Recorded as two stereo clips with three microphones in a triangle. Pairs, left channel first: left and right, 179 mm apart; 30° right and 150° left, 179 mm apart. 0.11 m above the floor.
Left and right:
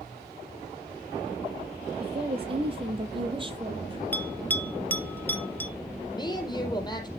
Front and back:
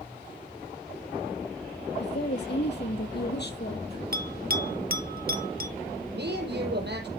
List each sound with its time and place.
2.0 s a woman speaking: 35° right, 5 m; by 4.0 s 30° right, 3.5 m
4.1 s a bell: 170° left, 0.9 m
6.1 s a woman speaking: 155° left, 4 m